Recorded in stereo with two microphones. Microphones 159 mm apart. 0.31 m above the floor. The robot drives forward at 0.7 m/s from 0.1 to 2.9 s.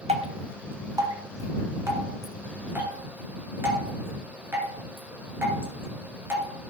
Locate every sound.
0.1 s dripping: 45° right (ahead or behind), 0.8 m; by 6.5 s 10° right (ahead or behind), 2.5 m